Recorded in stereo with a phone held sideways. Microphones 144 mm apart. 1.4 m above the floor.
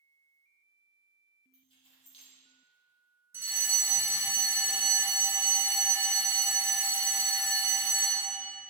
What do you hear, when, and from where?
1.5 s keys jangling: 40° left (ahead or behind), 1.6 m
3.3 s a fire alarm: 15° right (ahead or behind), 1.3 m